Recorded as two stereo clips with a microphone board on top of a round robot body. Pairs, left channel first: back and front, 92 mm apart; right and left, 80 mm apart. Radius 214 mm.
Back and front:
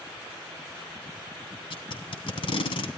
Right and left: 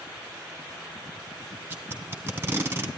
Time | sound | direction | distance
1.7 | tape being pulled | 155° left | 3 m